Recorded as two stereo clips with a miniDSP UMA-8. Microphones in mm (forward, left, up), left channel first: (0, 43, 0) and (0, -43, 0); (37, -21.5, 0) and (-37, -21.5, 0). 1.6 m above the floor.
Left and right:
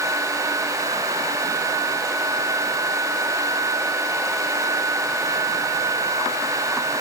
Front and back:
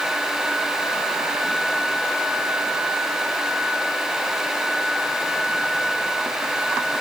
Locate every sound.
Only background noise.